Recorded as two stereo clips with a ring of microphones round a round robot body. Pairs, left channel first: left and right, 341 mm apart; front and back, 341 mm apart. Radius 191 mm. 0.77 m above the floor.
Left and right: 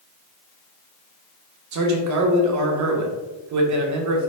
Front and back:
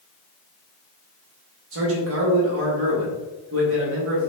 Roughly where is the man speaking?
Behind right.